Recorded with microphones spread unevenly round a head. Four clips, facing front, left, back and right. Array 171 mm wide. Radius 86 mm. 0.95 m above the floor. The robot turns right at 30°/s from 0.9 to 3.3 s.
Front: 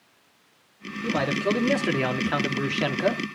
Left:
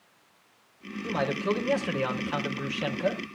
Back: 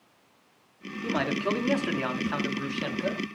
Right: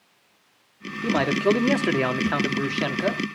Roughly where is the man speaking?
Right.